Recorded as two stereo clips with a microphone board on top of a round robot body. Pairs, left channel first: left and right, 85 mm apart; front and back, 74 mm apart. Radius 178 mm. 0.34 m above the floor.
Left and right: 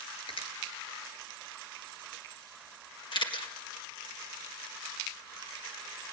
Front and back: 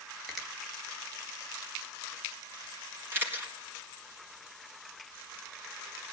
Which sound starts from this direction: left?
A finger snap, at 0.3 s.